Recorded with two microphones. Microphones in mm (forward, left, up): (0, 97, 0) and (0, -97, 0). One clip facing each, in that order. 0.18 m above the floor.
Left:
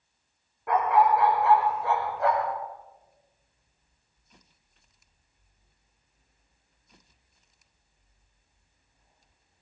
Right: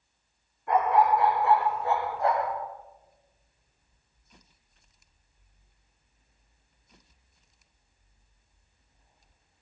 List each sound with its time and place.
0.7 s a dog barking: 85° left, 8 m